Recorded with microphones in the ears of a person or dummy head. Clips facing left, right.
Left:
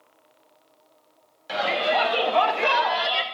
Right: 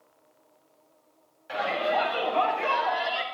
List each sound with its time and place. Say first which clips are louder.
1.5 s a shout: left 3 dB; 75° left (ahead or behind), 3 m; by 3.2 s 55° left (ahead or behind), 1.6 m